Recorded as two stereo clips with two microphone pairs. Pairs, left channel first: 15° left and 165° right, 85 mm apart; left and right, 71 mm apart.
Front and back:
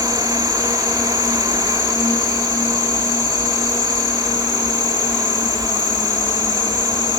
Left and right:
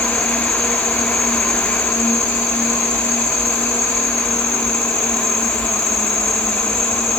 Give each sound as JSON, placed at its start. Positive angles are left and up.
{"t": 0.0, "sound": "an insect", "azimuth_deg": 35, "distance_m": 2.5}